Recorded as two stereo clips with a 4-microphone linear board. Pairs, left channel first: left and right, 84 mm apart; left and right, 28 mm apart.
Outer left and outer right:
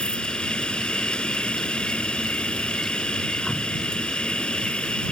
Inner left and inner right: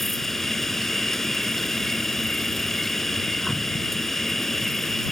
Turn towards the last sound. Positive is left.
turn(degrees=10)  # may be behind; listen again after turning